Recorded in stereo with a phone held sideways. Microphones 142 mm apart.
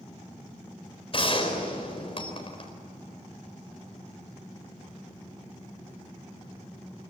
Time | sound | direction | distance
1.1 | a gunshot | 45° left (ahead or behind) | 4.5 m